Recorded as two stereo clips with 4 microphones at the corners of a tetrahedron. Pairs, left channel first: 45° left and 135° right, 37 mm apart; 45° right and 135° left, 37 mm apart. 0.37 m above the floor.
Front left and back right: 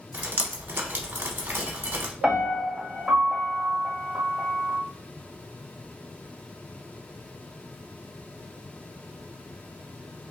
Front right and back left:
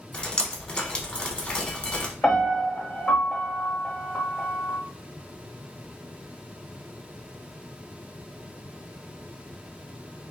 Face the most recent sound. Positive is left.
turn(degrees=-90)